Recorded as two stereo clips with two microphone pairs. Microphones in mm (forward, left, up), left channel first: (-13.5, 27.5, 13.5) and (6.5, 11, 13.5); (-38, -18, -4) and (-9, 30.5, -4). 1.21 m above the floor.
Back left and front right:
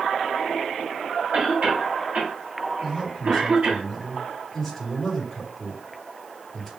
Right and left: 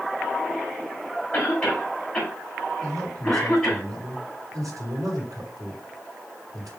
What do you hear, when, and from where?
1.3 s a cough: 45° right, 4.5 m
2.8 s a man speaking: 50° left, 5.5 m